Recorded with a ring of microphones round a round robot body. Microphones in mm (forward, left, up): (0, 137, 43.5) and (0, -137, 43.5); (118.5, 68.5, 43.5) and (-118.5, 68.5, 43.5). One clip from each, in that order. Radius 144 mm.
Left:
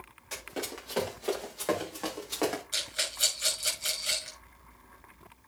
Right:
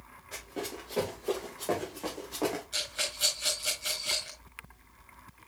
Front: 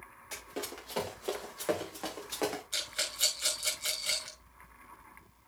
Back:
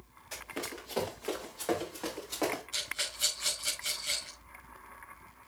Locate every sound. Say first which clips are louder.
0.3 s running footsteps: left 1 dB, back 1 dB; 55° left, 7.5 m; by 2.6 s 70° left, 6 m
2.7 s a rattle: left 1 dB, even; 30° left, 6 m